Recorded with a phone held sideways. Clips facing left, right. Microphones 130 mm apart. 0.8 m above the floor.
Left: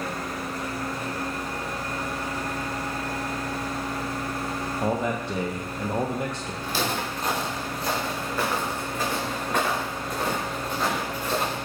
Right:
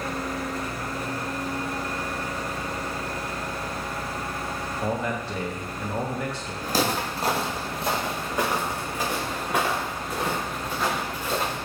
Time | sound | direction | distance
4.8 | a man speaking | 20° left (ahead or behind) | 0.7 m
6.6 | footsteps | 45° right (ahead or behind) | 1.5 m